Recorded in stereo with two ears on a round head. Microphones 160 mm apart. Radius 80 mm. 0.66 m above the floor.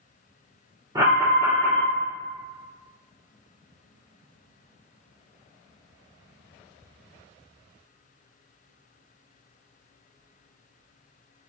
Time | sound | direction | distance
0.9 | an alarm | 20° right (ahead or behind) | 1.3 m